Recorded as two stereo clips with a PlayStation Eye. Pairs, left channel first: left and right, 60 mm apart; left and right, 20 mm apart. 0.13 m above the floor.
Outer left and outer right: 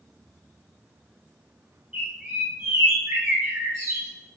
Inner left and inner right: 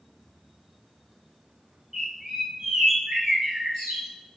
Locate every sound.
1.9 s a bird: 10° right (ahead or behind), 2.5 m